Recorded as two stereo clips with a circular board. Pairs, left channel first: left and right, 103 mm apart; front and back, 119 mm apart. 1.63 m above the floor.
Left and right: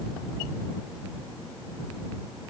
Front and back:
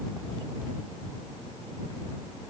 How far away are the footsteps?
I don't hear footsteps.